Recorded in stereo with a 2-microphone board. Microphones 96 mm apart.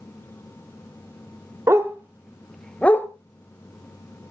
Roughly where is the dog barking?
Right.